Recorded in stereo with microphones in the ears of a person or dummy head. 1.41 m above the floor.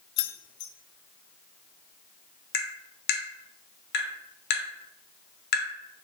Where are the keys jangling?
65° left (ahead or behind), 0.5 m.